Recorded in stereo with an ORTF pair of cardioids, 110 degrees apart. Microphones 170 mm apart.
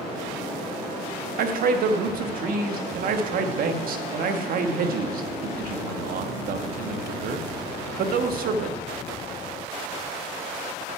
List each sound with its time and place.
1.4 s a man speaking: 60° right, 1.3 m